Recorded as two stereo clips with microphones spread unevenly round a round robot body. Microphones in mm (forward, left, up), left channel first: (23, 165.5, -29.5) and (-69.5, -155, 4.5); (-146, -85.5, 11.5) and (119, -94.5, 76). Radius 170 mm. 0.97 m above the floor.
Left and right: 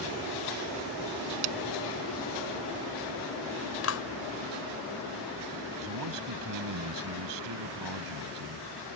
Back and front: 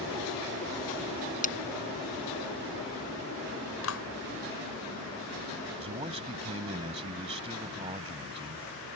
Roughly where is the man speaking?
Right.